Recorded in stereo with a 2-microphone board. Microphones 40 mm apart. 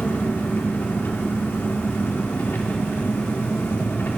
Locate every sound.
0.0 s an engine running: 65° left (ahead or behind), 1.5 m